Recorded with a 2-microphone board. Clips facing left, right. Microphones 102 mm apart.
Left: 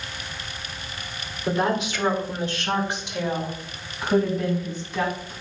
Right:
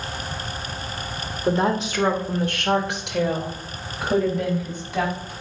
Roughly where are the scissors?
No scissors in this recording.